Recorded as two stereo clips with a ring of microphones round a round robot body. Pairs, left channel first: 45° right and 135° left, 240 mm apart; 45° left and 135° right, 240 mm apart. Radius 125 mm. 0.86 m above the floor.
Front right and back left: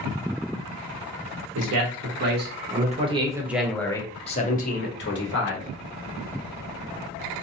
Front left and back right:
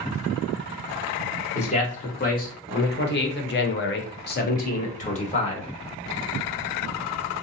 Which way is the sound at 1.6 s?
105° left.